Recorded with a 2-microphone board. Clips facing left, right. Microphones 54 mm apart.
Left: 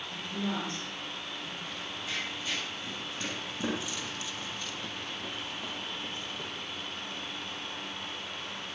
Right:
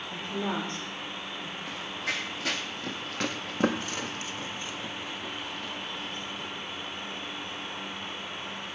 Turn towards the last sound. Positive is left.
turn(degrees=30)  # may be behind; listen again after turning